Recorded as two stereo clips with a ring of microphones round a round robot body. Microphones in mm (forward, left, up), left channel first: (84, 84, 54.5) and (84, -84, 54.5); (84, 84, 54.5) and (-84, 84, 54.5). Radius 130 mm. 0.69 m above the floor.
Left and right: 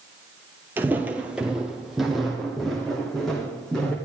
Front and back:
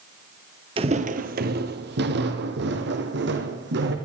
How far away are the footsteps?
About 0.7 m.